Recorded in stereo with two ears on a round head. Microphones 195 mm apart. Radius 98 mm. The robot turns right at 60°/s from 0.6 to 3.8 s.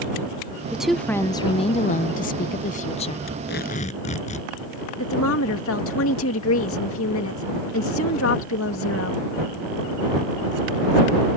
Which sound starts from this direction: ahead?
A woman speaking, at 0.7 s.